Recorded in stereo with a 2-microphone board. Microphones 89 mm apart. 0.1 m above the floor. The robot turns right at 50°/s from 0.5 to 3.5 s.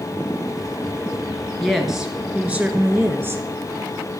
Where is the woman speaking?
Centre (ahead or behind), 1.5 m; by 3.4 s 25° right (ahead or behind), 1.5 m.